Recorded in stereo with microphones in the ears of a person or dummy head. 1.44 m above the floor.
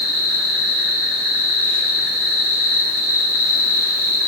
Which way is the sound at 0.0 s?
85° right.